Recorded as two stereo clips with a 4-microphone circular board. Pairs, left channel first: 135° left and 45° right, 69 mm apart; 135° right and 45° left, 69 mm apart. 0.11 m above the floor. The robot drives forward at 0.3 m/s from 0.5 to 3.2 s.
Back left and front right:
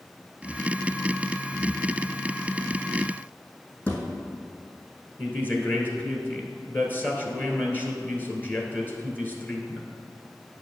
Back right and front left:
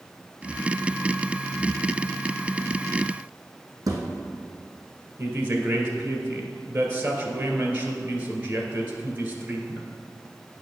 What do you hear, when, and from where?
3.9 s a thud: 70° left, 1.8 m
5.2 s a woman speaking: 90° left, 1.4 m